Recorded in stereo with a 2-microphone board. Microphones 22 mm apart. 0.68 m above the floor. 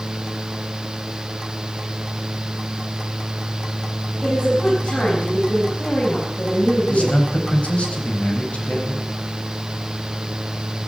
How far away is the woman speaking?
About 5.5 m.